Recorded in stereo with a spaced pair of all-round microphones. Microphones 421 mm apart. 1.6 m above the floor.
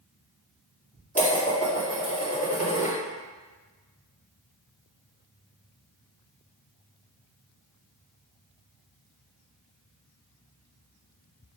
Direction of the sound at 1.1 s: 15° left (ahead or behind).